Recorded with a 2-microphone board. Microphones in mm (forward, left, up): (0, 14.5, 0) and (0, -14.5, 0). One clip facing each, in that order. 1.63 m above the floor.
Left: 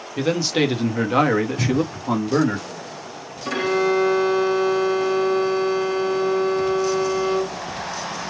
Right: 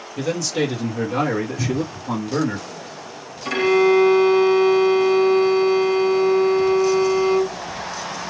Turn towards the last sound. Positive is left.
turn(degrees=-15)  # may be behind; listen again after turning